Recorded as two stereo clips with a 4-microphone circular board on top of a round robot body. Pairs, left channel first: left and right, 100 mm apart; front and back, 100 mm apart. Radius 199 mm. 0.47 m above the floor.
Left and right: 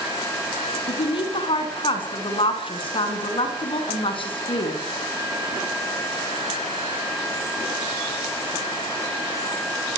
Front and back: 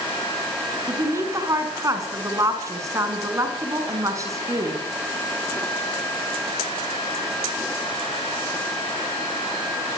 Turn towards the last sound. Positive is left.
turn(degrees=120)